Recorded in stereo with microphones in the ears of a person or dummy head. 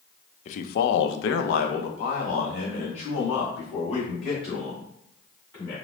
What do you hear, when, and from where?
0.5 s a man speaking: 45° left (ahead or behind), 0.6 m; by 5.8 s 30° left (ahead or behind), 3 m